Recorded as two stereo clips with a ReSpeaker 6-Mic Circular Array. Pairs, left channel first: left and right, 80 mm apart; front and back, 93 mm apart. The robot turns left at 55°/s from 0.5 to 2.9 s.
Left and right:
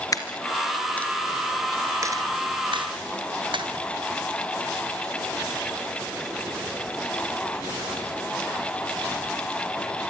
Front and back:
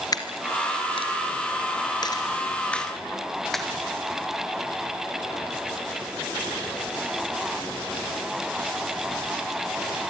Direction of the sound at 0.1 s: 45° left.